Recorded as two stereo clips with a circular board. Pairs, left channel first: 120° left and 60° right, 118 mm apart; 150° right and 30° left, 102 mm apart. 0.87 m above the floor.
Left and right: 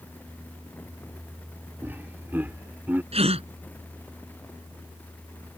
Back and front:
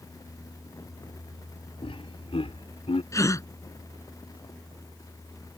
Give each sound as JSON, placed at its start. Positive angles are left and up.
{"t": 1.8, "sound": "laughter", "azimuth_deg": -130}
{"t": 3.1, "sound": "a gasp", "azimuth_deg": -90}